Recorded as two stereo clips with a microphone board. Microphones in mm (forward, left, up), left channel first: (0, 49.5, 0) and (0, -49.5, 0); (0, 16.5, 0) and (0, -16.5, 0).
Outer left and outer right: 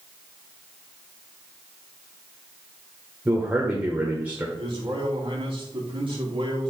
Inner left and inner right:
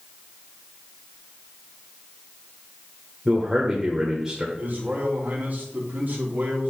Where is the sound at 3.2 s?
15° right (ahead or behind), 1.3 m.